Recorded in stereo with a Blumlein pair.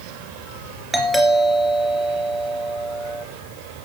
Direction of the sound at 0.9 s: 5° right.